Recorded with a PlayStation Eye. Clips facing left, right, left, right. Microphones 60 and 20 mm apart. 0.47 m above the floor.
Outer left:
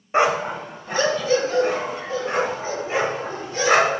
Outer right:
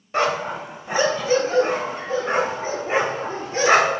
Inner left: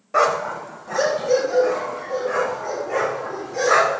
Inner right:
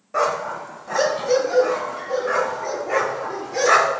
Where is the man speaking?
I don't hear a man speaking.